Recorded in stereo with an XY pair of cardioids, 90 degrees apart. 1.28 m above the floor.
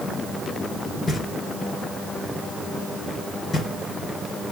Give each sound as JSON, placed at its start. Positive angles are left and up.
{"t": 1.1, "sound": "knocking", "azimuth_deg": 50, "distance_m": 2.5}